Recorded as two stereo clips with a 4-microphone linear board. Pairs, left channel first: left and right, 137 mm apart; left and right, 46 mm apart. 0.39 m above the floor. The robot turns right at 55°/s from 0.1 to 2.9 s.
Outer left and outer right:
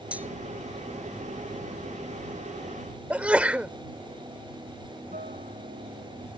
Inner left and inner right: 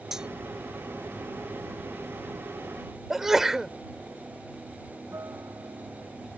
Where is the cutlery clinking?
10° right (ahead or behind); by 0.3 s 20° right (ahead or behind).